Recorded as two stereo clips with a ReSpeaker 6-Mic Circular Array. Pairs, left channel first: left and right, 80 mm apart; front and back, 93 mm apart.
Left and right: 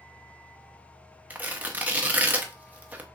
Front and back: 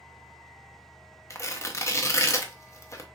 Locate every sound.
1.3 s tearing paper: 35° right, 0.8 m